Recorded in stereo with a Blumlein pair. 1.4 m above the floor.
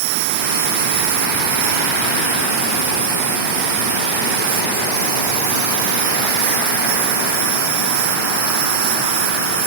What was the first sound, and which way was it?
An insect, 50° right.